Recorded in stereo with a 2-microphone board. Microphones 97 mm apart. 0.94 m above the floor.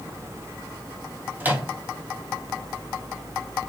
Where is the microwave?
20° right (ahead or behind), 0.6 m.